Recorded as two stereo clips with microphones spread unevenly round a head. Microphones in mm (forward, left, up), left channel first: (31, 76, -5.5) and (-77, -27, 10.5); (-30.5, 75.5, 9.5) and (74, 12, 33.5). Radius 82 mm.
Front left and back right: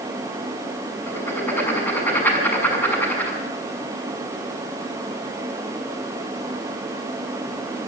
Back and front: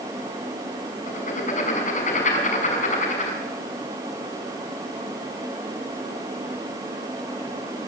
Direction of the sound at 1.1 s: 125° left.